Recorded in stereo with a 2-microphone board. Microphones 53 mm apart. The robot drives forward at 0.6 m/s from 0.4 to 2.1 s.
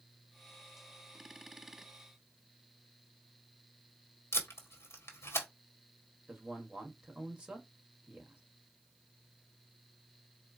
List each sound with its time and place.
4.3 s tape being pulled: 50° left (ahead or behind), 1.5 m
6.3 s a man speaking: 20° right (ahead or behind), 1.5 m